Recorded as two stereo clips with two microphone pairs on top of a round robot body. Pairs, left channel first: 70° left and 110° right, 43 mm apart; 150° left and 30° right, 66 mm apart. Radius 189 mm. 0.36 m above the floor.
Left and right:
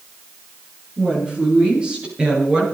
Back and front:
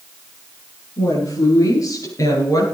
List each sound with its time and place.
1.0 s a woman speaking: 170° right, 8 m; by 2.6 s 175° right, 9 m